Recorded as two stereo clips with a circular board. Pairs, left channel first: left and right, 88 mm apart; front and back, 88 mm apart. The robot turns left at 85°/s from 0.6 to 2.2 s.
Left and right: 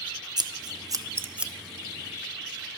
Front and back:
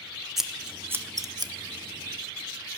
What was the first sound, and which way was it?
Scissors, 95° right.